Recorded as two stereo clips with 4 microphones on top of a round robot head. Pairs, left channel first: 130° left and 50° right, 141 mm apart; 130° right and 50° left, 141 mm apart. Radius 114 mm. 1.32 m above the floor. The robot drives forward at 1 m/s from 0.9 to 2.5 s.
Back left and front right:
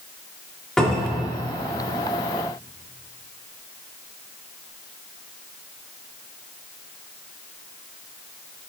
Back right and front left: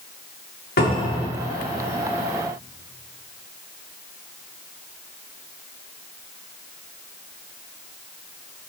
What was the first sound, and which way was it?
A cupboard door, 140° right.